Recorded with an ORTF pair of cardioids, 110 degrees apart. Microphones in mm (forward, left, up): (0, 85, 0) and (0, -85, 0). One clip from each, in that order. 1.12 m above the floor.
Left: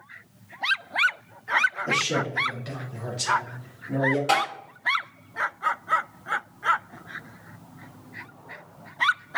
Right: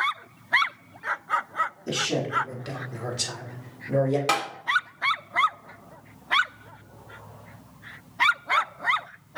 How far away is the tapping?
About 1.9 m.